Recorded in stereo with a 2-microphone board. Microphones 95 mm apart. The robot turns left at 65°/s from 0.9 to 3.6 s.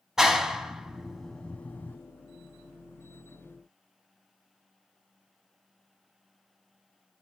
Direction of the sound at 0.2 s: 5° right (ahead or behind).